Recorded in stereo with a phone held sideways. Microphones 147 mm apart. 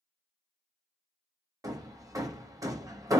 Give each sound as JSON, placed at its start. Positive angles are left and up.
{"t": 1.6, "sound": "hammering", "side_deg": -25, "distance_m": 0.6}